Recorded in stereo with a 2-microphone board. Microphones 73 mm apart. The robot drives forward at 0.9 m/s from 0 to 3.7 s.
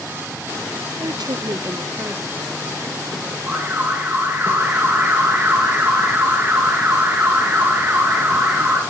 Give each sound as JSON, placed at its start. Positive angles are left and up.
{"t": 1.0, "sound": "a woman speaking", "side_deg": -55, "distance_m": 0.5}
{"t": 3.5, "sound": "an alarm", "side_deg": -30, "distance_m": 3.0}